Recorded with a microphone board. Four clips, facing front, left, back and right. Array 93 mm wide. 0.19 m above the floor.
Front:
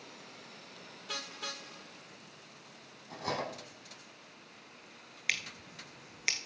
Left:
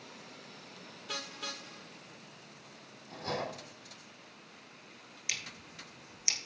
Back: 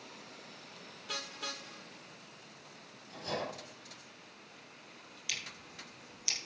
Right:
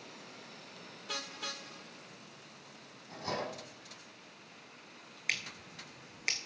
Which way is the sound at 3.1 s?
5° right.